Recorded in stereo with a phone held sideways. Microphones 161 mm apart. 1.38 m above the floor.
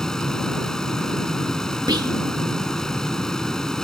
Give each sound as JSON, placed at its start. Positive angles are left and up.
{"t": 0.0, "sound": "a fan", "side_deg": 5}
{"t": 1.9, "sound": "whispering", "side_deg": -25}